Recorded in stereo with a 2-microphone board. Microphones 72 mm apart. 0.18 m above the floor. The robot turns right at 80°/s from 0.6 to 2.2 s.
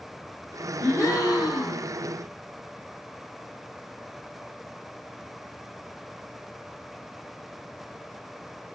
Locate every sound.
0.8 s a gasp: 35° left, 1.7 m; by 1.9 s 120° left, 1.7 m